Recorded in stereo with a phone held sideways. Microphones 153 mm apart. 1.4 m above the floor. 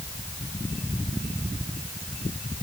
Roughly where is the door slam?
No door slam in this recording.